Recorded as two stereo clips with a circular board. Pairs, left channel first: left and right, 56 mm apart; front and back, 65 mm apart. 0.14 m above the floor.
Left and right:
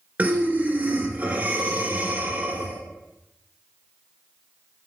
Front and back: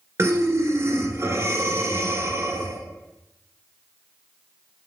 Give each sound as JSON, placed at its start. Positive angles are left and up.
{"t": 0.2, "sound": "breathing", "azimuth_deg": -145, "distance_m": 1.0}